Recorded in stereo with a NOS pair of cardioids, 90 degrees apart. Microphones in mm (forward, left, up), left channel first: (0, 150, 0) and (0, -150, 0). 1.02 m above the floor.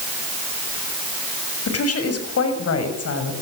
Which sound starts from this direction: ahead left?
A woman speaking, at 1.7 s.